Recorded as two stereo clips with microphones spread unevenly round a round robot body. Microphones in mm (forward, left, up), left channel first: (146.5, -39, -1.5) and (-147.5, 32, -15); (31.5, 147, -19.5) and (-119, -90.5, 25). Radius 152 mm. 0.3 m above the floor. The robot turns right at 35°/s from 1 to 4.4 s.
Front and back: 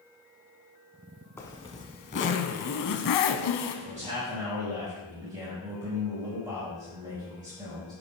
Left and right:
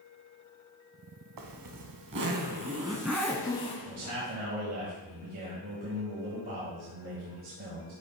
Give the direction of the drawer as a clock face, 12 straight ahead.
I don't hear a drawer.